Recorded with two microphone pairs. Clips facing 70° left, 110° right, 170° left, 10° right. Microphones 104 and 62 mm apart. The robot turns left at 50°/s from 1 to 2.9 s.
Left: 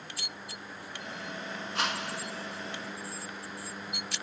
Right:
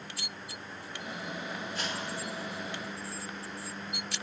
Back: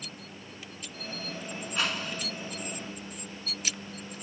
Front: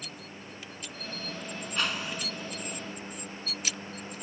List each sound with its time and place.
1.8 s a whoosh: 85° left, 1.7 m; by 2.3 s 60° left, 1.7 m